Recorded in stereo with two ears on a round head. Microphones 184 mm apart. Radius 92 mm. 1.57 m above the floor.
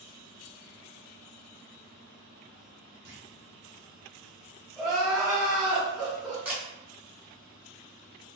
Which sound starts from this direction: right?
A clunk, at 3.0 s.